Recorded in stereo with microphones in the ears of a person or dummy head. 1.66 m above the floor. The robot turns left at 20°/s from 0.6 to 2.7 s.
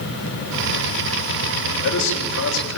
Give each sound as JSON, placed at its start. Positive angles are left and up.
{"t": 1.6, "sound": "a man speaking", "side_deg": 55, "distance_m": 7.0}